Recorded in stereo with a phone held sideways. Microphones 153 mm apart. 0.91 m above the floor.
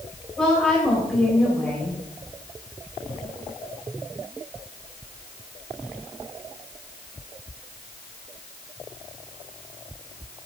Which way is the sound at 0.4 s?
5° left (ahead or behind).